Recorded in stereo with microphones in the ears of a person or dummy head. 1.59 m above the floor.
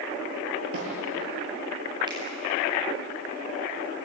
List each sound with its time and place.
0.7 s a snare drum: 80° right, 7 m
2.1 s a finger snap: 25° right (ahead or behind), 8.5 m